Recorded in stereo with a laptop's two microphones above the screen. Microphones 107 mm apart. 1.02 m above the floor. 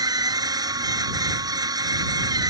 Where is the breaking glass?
No breaking glass in this recording.